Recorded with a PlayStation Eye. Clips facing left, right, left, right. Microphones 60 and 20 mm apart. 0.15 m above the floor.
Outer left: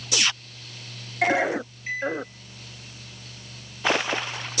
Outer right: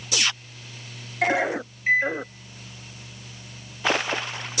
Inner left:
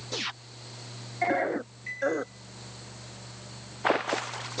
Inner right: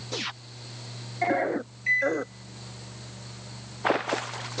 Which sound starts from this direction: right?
A microwave, at 1.9 s.